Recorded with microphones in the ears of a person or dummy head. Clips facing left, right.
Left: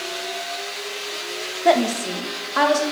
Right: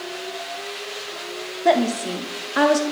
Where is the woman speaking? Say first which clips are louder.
Even; centre (ahead or behind), 1.3 m; by 2.8 s 30° right (ahead or behind), 1.4 m.